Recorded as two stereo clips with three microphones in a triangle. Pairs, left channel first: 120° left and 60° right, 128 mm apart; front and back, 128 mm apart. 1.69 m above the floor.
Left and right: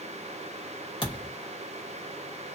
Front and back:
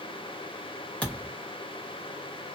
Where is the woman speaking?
I don't hear a woman speaking.